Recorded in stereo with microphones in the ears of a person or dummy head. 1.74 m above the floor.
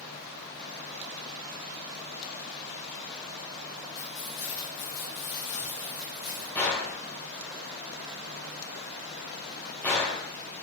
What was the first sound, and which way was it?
Keys jangling, 65° left (ahead or behind).